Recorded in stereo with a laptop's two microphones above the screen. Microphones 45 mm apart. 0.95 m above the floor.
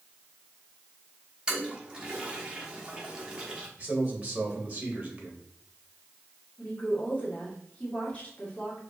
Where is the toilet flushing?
20° right (ahead or behind), 1.2 m.